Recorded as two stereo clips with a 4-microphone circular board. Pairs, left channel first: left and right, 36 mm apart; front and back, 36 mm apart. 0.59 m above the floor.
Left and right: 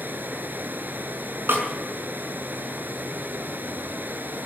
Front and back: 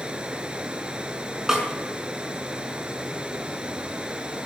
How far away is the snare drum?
About 5.5 m.